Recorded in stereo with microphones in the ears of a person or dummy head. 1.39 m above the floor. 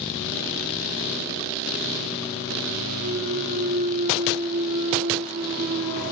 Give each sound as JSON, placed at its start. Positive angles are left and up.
{"t": 3.0, "sound": "a clunk", "side_deg": -50, "distance_m": 1.9}